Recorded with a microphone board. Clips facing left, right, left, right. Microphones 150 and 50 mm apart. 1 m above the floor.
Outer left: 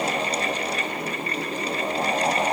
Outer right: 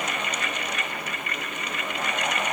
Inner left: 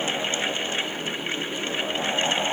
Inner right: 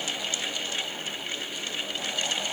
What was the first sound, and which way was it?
Only background noise.